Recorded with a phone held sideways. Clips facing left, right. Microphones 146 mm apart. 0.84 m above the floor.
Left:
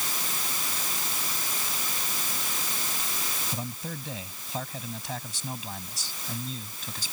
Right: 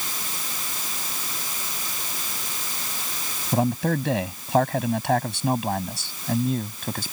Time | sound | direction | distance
3.5 | a man speaking | 80° right | ?